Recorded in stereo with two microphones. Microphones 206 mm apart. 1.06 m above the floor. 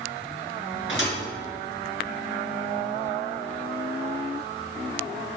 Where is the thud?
70° left (ahead or behind), 3 m.